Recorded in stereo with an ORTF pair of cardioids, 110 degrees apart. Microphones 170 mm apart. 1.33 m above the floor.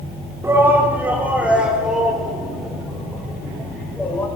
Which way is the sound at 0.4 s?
15° right.